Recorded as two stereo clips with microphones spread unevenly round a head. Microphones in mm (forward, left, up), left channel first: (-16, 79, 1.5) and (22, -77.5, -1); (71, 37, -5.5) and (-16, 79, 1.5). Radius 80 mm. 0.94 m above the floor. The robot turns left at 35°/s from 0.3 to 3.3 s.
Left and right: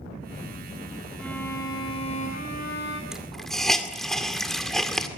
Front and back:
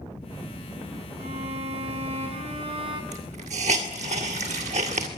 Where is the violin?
170° right, 5 m; by 3.0 s 125° left, 5 m.